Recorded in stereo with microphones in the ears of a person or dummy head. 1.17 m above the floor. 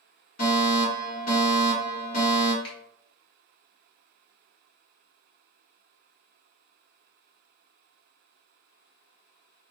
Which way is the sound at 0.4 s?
45° left (ahead or behind).